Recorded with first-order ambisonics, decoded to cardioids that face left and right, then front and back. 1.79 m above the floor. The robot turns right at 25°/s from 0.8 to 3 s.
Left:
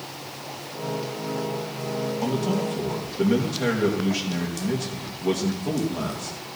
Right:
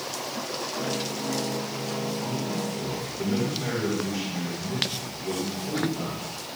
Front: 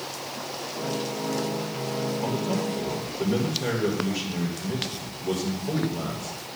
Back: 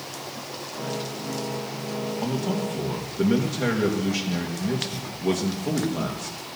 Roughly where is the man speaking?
Behind left.